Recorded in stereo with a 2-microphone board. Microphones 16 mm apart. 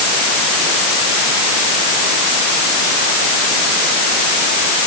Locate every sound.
Only background noise.